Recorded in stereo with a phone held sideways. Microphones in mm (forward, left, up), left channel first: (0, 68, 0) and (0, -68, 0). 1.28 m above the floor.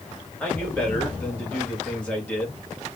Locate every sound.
0.4 s a man speaking: 10° left (ahead or behind), 1.7 m